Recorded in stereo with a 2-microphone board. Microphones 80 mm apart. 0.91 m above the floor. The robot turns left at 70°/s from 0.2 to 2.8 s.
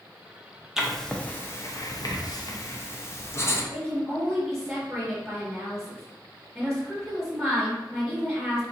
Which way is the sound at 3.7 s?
Centre (ahead or behind).